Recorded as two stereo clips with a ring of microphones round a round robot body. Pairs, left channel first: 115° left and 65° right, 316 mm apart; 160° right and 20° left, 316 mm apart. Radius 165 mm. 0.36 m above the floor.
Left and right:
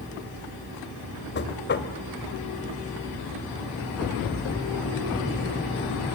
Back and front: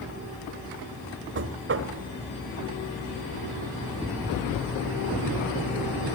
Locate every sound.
1.4 s knocking: 65° left, 1.8 m